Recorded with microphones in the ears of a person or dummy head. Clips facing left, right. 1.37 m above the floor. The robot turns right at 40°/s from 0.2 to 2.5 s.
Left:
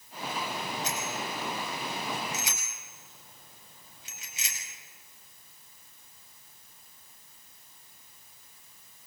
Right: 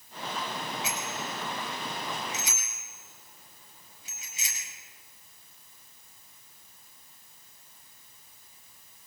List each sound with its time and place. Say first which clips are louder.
0.8 s a bicycle bell: left 1 dB; 10° right (ahead or behind), 6.5 m; by 4.6 s 55° left (ahead or behind), 6.5 m